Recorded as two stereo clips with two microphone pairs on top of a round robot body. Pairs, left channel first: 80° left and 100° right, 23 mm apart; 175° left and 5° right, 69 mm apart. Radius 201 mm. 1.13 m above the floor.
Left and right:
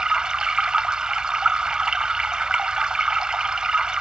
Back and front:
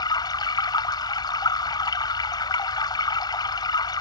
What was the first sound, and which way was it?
Running water, 160° right.